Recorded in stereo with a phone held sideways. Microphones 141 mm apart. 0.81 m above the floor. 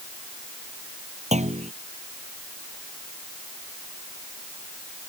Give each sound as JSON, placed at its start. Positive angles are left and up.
{"t": 1.3, "sound": "a clunk", "side_deg": -50}